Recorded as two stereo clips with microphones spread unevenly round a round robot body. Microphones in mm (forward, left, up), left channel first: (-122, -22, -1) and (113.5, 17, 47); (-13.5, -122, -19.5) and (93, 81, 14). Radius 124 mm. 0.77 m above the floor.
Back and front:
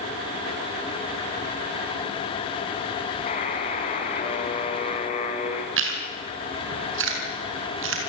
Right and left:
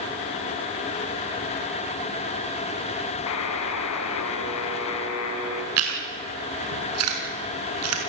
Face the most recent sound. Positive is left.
turn(degrees=50)